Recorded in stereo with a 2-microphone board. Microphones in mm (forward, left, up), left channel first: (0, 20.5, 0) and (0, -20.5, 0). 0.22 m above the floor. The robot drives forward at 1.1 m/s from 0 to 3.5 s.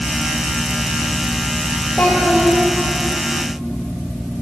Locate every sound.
2.0 s a child speaking: 65° left (ahead or behind), 4 m; by 2.6 s 55° left (ahead or behind), 4.5 m